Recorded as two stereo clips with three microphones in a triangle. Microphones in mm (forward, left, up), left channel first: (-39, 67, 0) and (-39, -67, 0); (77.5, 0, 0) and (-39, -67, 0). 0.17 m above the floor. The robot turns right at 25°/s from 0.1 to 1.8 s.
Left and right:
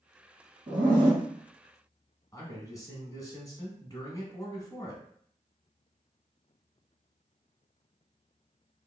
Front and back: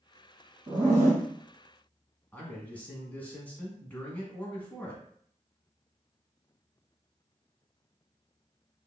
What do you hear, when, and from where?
0.7 s a zipper: 115° right, 1.6 m; by 1.2 s 100° right, 1.6 m
2.3 s a man speaking: 90° left, 1.2 m